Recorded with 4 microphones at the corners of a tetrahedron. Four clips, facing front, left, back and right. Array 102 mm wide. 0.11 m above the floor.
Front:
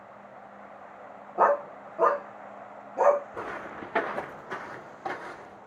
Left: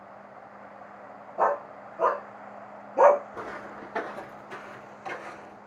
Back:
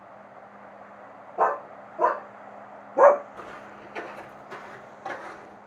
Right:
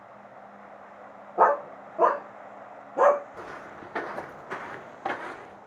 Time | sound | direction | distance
1.4 | a dog barking | 80° right | 1.8 m
3.3 | footsteps | 30° left | 1.1 m